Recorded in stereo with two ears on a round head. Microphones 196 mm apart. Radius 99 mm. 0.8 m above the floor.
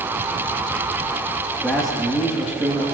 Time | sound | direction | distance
1.6 | a man speaking | centre (ahead or behind) | 1.3 m